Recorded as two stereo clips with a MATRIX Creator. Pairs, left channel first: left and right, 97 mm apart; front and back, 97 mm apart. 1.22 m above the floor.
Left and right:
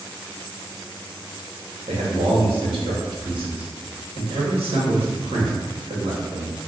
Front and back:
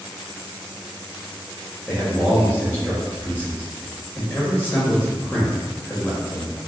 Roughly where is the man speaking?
Right.